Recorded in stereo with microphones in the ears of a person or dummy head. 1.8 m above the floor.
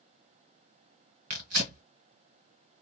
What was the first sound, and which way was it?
Tearing paper, 35° right (ahead or behind).